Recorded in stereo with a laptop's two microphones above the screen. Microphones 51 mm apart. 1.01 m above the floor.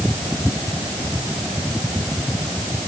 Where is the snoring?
I don't hear snoring.